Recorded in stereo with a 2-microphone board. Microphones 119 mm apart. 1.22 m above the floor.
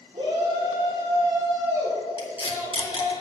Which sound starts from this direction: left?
Tape being pulled, at 2.2 s.